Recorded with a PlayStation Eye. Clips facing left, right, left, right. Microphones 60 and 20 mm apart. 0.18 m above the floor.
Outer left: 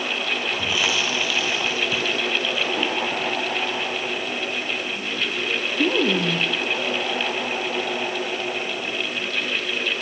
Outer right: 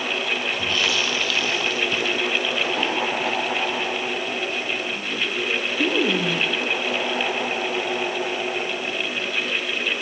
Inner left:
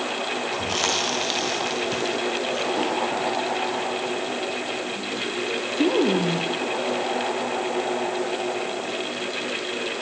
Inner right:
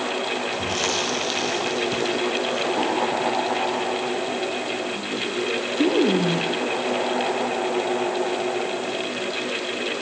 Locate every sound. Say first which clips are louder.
0.5 s chewing: outer left 1 dB, inner left 2 dB; 10° left (ahead or behind), 6 m